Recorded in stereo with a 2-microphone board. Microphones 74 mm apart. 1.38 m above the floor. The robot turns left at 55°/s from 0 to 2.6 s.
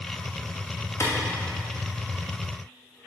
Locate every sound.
1.0 s a clap: 45° left (ahead or behind), 2.5 m; by 1.1 s 50° left (ahead or behind), 2.5 m